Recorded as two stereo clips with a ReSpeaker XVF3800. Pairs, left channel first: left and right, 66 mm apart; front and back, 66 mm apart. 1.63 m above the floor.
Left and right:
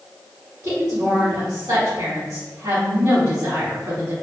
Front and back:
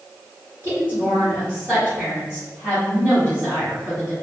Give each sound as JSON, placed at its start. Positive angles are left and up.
{"t": 0.6, "sound": "a woman speaking", "azimuth_deg": -125, "distance_m": 1.8}